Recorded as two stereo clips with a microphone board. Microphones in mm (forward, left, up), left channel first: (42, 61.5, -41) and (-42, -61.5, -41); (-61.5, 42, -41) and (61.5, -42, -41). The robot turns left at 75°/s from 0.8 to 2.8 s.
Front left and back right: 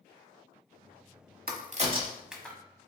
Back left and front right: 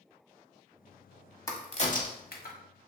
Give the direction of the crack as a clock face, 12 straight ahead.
5 o'clock.